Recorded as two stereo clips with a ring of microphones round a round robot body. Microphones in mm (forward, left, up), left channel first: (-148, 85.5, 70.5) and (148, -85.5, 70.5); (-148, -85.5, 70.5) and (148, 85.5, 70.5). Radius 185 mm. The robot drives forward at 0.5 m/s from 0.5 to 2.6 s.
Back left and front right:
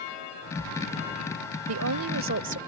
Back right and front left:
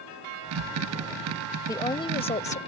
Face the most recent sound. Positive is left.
turn(degrees=-85)